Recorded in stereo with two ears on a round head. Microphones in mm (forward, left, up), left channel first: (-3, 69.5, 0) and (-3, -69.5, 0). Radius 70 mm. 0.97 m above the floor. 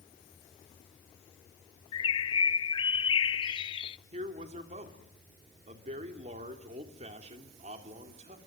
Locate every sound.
1.9 s a bird: 30° left (ahead or behind), 0.5 m
4.1 s a man speaking: 45° right (ahead or behind), 3 m